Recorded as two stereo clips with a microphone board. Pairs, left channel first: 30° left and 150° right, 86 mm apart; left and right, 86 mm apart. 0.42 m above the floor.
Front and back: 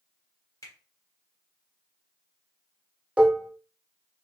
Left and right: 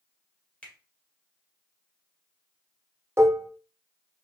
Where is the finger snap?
20° left, 1.7 m.